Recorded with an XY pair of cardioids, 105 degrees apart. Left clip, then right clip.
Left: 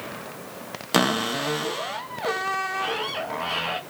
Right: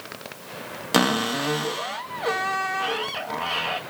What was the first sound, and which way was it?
A cupboard door, 5° right.